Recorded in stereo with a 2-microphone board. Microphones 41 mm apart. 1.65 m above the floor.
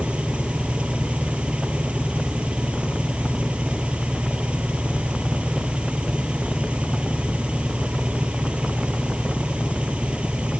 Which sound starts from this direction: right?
An engine running, at 0.0 s.